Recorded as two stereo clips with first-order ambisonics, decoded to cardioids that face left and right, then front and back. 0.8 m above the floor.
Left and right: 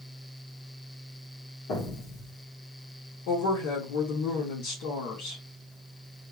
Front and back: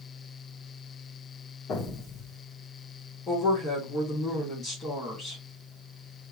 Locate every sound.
1.7 s an explosion: 55° left, 2 m
3.3 s a woman speaking: 75° left, 2.5 m